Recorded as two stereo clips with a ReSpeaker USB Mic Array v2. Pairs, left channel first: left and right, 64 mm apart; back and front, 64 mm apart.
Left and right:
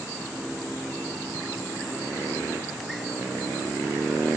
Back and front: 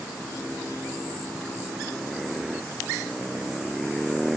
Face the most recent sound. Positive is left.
No sound to turn to.